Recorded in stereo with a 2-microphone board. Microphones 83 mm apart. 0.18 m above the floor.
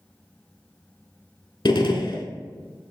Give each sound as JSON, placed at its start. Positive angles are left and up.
{"t": 1.6, "sound": "a gunshot", "side_deg": 65, "distance_m": 0.7}